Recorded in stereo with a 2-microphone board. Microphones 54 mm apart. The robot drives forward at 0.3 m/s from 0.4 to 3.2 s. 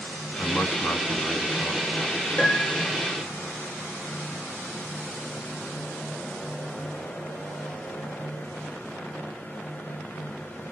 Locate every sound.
0.4 s a man speaking: 40° left (ahead or behind), 1.9 m; by 1.9 s 35° left (ahead or behind), 2 m
2.4 s a piano: 45° left (ahead or behind), 3.5 m